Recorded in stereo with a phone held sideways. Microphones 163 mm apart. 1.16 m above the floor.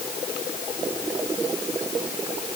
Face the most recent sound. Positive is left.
No sound to turn to.